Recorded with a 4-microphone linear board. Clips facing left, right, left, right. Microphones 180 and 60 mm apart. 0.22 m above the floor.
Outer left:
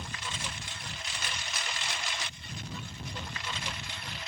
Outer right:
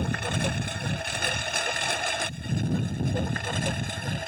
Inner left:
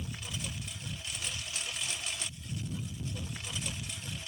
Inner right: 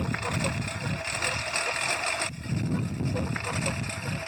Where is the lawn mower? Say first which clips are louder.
Outer right 13 dB, inner right 12 dB; 60° right (ahead or behind); by 4.3 s 50° right (ahead or behind).